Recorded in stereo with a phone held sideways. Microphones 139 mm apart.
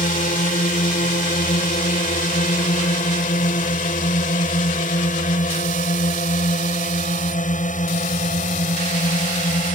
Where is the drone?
75° left (ahead or behind); by 9.8 s 65° left (ahead or behind).